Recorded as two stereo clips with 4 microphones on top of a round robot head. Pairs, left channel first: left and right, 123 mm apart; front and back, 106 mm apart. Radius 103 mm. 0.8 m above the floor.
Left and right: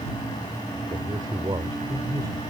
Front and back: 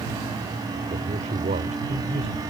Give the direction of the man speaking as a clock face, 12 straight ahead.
5 o'clock.